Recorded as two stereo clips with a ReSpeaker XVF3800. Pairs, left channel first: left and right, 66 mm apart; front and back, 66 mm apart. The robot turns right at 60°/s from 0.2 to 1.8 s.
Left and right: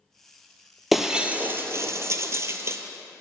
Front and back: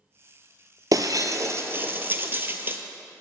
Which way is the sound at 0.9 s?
Straight behind.